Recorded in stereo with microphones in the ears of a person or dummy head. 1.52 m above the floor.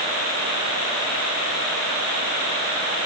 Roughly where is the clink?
I don't hear a clink.